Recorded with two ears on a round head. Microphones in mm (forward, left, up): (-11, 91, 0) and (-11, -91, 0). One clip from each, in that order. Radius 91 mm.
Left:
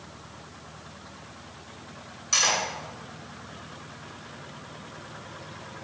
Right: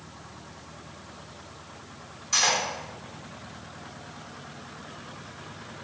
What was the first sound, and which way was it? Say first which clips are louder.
Cutlery clinking: even; 25° left (ahead or behind).